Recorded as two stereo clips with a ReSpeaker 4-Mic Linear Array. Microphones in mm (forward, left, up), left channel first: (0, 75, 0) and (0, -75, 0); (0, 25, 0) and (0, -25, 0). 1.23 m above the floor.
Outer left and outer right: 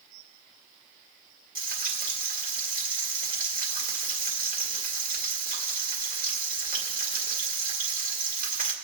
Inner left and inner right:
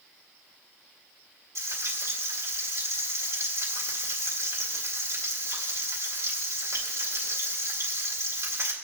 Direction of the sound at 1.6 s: 70° right (ahead or behind).